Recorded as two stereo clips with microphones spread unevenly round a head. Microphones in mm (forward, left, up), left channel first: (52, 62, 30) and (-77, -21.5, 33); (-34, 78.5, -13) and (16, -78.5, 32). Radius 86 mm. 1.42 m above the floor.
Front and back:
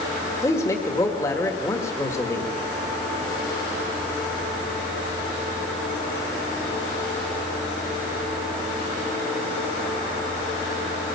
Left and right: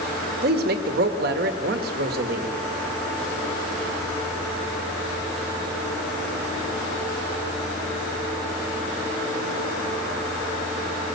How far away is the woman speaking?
About 1.8 m.